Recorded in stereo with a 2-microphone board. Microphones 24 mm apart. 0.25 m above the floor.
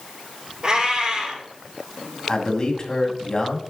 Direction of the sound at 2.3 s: 30° left (ahead or behind).